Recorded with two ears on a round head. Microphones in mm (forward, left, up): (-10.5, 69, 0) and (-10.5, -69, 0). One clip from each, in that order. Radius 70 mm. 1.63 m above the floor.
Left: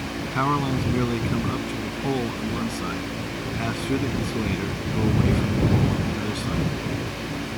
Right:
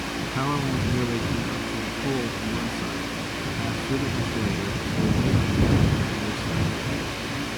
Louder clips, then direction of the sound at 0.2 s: Left 5 dB; 35° left (ahead or behind).